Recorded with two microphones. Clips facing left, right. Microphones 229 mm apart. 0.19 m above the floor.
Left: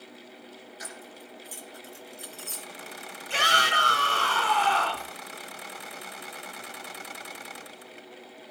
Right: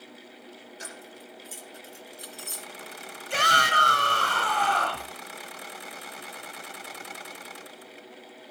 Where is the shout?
40° right (ahead or behind), 2 m.